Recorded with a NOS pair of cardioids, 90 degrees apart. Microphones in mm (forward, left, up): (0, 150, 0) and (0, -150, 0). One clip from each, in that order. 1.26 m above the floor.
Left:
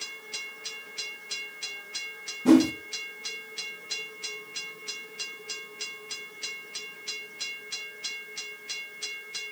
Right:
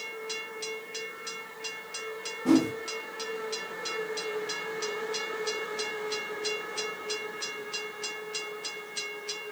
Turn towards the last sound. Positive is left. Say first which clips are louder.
# left 4 dB
turn(degrees=25)